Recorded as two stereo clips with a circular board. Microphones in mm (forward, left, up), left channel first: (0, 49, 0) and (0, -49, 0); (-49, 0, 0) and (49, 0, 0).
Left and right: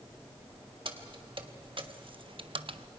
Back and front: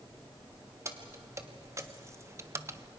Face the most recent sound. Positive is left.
turn(degrees=-65)